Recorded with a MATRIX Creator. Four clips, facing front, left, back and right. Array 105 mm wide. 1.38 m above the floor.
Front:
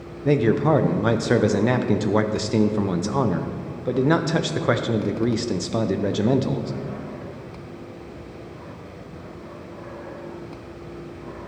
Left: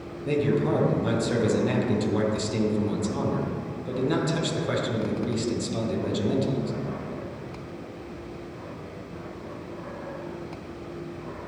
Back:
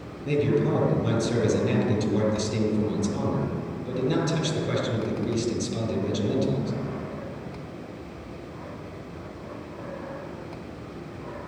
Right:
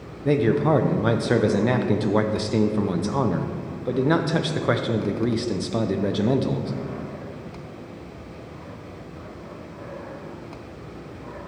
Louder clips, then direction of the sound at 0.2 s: Right 4 dB, front 5 dB; 35° right.